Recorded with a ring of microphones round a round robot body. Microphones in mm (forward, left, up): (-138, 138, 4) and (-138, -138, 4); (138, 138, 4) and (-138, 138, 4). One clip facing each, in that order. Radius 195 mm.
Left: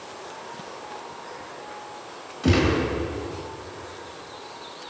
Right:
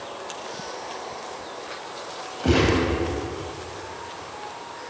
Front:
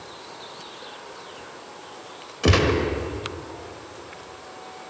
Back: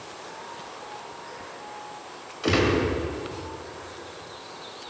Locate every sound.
2.4 s a gunshot: 25° left, 2 m